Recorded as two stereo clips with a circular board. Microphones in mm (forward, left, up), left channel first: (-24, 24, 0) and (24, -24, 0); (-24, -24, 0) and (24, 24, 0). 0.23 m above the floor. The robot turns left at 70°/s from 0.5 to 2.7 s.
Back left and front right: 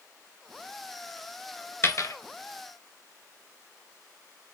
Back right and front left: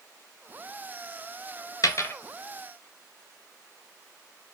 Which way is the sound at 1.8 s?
170° right.